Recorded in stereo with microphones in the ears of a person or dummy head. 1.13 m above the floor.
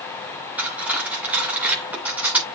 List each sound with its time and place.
0.6 s cutlery clinking: 10° right (ahead or behind), 2.5 m